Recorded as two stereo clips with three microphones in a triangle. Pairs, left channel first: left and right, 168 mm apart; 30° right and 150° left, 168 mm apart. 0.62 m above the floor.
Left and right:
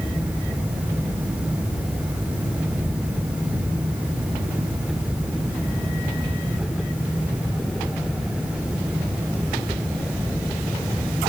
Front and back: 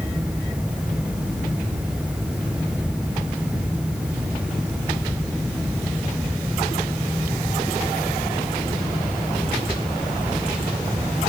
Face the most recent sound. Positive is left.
No sound to turn to.